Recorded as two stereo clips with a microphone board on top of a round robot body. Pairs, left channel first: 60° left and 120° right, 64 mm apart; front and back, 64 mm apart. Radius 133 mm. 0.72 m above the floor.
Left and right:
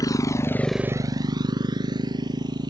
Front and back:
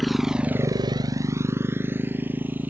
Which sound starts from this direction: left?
A motorcycle, at 0.0 s.